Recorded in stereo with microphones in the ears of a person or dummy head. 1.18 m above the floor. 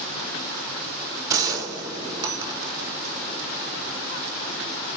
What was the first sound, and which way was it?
A gunshot, 20° right (ahead or behind).